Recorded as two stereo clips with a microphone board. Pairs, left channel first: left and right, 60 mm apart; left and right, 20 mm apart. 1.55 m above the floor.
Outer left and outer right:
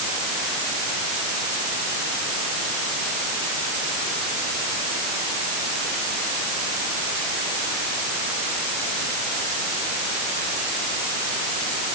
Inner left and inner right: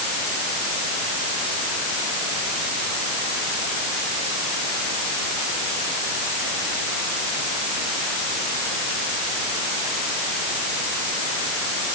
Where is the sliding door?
I don't hear a sliding door.